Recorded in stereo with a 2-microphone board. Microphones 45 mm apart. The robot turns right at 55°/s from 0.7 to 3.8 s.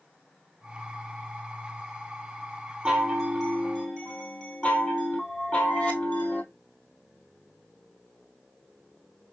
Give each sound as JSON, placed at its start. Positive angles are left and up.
{"t": 2.9, "sound": "a chime", "azimuth_deg": -20, "distance_m": 1.1}